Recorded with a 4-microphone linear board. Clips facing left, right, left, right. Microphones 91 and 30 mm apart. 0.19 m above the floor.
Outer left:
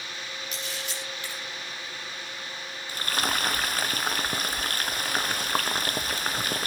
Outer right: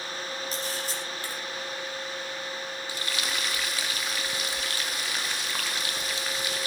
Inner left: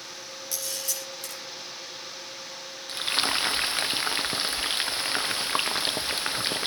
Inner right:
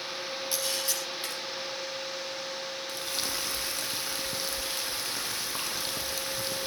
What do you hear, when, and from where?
0.5 s a camera shutter: 35° right (ahead or behind), 7.5 m
2.9 s frying: 45° left (ahead or behind), 1.0 m